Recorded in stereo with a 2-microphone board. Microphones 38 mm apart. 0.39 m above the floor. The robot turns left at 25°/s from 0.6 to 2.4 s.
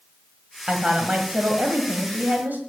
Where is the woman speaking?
25° right, 1.6 m; by 2.6 s 70° right, 1.6 m.